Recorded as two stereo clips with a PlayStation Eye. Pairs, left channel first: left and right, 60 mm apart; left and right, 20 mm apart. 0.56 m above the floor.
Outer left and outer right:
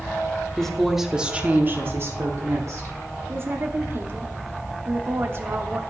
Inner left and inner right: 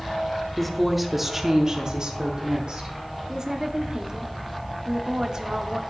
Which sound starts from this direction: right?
A woman speaking, at 3.3 s.